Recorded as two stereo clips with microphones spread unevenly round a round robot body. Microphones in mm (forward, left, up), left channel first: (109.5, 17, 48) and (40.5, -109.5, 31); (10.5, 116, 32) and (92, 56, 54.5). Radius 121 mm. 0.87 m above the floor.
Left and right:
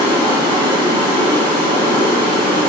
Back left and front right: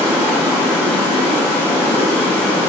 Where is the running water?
145° right, 3.5 m.